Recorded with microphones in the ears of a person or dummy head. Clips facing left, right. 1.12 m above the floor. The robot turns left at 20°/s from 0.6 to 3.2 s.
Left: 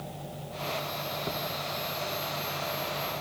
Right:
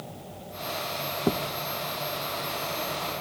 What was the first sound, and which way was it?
A thud, 45° right (ahead or behind).